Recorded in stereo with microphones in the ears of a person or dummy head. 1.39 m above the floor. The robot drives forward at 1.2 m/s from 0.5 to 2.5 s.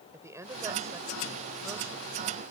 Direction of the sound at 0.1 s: 15° right (ahead or behind).